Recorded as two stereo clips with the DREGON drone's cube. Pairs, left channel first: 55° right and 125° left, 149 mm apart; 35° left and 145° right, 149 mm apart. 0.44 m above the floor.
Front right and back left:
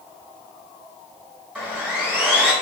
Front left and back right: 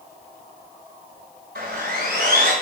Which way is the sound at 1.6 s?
155° right.